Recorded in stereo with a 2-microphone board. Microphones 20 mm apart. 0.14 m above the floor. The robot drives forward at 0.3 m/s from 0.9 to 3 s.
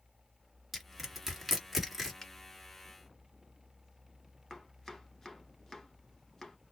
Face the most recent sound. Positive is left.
turn(degrees=25)  # may be behind; listen again after turning